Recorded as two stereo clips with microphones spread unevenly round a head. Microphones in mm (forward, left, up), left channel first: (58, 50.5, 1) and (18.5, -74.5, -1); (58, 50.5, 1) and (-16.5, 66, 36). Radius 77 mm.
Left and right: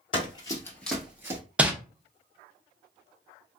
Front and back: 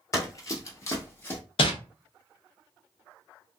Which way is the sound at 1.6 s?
25° right.